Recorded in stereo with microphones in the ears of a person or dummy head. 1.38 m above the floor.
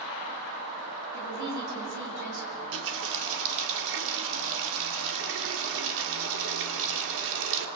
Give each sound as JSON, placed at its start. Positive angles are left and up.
{"t": 1.1, "sound": "a woman speaking", "side_deg": -60, "distance_m": 7.5}
{"t": 2.5, "sound": "a running tap", "side_deg": -75, "distance_m": 2.0}